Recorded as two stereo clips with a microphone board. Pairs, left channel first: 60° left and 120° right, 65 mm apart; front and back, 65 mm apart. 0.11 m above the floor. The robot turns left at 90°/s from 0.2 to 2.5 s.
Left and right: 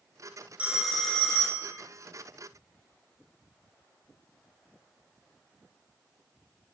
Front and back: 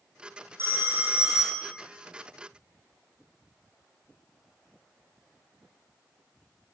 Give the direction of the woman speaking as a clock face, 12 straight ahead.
I don't hear a woman speaking.